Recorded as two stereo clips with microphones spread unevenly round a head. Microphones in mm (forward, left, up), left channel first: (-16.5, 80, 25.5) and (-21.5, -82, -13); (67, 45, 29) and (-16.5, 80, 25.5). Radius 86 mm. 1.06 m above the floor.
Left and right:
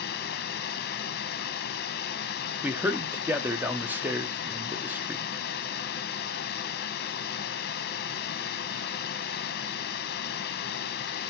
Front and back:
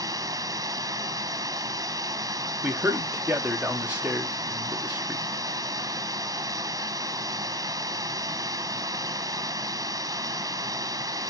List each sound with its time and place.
0.0 s running water: 115° left, 0.8 m
2.6 s a man speaking: 140° right, 0.8 m